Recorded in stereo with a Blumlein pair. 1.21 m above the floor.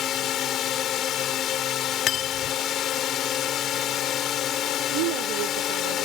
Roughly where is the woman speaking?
Ahead right.